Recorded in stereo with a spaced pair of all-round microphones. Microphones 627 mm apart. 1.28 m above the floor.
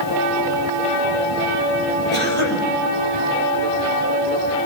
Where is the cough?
50° left (ahead or behind), 6.5 m.